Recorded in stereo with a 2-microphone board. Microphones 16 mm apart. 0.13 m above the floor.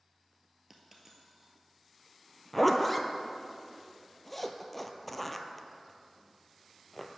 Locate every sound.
0.7 s a dropped coin: 25° right (ahead or behind), 1.2 m
2.5 s a zipper: 5° left (ahead or behind), 0.5 m